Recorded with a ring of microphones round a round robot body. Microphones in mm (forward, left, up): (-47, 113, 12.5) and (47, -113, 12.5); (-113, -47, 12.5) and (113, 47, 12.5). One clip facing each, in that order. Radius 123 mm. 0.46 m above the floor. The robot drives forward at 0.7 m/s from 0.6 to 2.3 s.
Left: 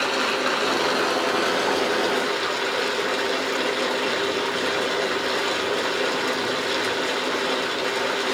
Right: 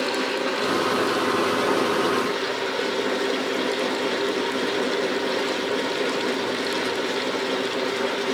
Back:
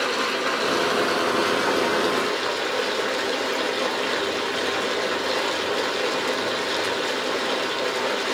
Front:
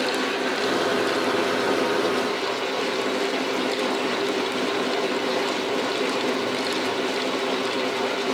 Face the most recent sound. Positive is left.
turn(degrees=140)